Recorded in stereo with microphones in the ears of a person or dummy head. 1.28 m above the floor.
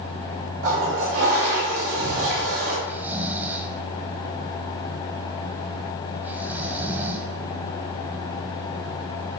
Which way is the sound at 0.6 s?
70° right (ahead or behind).